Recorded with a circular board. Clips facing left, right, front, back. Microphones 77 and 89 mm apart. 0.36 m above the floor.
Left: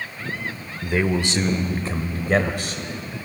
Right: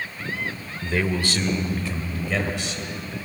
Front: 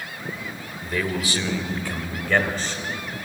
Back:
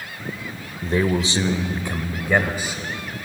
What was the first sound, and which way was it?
A man speaking, 160° left.